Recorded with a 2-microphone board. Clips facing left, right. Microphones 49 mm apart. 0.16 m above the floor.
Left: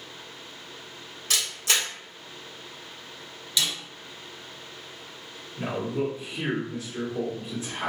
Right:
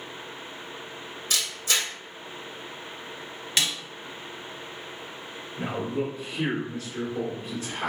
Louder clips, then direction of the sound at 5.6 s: Left 1 dB; 20° left (ahead or behind).